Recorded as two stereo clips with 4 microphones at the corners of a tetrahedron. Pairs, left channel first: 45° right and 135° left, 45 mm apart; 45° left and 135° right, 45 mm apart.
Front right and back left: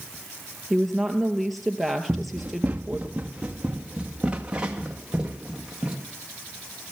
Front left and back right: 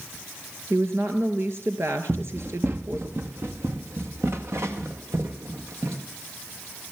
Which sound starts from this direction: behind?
Running footsteps, at 2.1 s.